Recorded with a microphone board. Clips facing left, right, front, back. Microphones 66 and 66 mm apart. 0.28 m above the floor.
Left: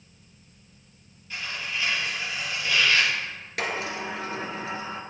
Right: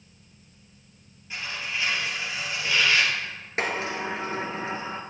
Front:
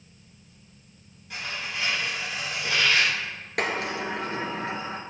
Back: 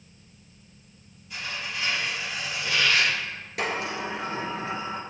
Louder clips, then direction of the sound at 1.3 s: Even, even; 20° right.